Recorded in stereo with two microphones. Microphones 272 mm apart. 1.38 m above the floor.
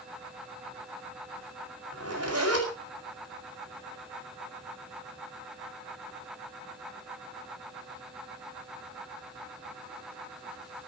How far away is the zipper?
About 8 m.